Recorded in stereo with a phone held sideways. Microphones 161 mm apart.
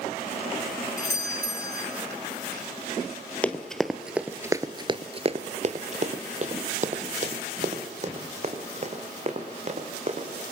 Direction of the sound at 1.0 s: 80° right.